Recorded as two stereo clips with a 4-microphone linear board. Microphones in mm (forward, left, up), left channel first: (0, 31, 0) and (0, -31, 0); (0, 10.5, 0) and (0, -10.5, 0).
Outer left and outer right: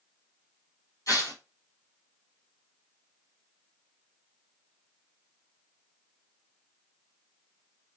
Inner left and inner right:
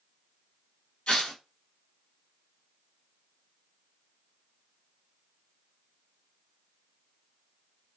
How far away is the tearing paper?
About 1.5 m.